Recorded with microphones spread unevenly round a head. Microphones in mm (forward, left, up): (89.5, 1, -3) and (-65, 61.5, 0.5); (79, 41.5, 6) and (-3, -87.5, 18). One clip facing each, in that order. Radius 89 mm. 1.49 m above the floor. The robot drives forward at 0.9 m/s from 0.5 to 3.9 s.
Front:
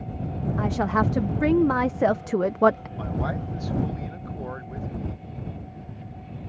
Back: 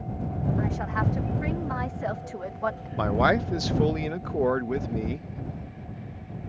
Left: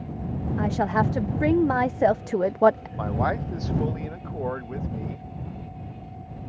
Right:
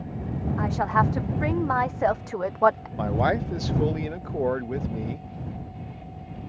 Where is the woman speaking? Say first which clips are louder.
Front 5 dB, left 1 dB; straight ahead; by 2.9 s 5° right.